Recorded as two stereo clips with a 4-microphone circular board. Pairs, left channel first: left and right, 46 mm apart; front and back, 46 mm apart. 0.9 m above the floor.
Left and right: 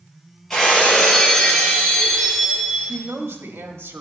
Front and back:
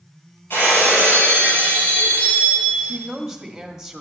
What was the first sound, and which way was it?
Breaking glass, 15° left.